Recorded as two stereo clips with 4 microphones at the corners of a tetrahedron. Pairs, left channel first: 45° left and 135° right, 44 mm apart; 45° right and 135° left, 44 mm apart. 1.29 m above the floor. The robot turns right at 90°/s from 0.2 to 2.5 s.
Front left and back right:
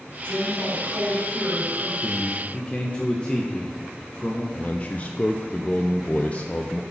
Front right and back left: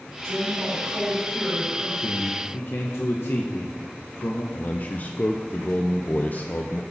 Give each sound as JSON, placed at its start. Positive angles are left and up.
{"t": 0.2, "sound": "a woman speaking", "azimuth_deg": 110, "distance_m": 4.5}
{"t": 2.0, "sound": "a man speaking", "azimuth_deg": -65, "distance_m": 1.0}
{"t": 4.5, "sound": "a man speaking", "azimuth_deg": -5, "distance_m": 0.5}